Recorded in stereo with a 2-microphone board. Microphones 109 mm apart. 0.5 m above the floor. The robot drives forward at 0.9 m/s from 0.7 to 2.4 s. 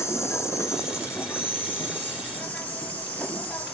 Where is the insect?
25° left (ahead or behind), 2 m; by 3.7 s 15° left (ahead or behind), 3.5 m.